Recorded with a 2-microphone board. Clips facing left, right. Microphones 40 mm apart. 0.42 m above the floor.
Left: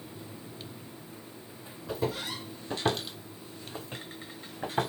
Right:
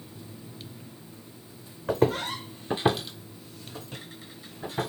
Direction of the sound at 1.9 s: 60° right (ahead or behind).